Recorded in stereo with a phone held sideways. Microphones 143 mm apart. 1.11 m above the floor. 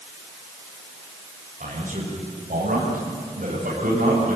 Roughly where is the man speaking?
Right.